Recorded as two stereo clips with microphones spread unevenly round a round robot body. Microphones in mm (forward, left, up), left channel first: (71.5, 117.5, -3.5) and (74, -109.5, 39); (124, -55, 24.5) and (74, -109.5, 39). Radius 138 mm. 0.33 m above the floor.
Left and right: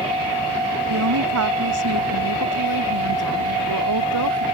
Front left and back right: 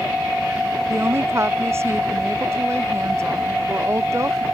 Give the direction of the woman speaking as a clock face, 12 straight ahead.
3 o'clock.